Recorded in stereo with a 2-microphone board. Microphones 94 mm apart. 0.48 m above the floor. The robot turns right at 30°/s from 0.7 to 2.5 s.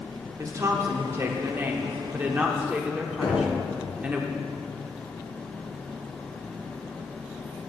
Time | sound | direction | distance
0.4 | a woman speaking | 85° right | 0.9 m
3.2 | knocking | 60° left (ahead or behind) | 3 m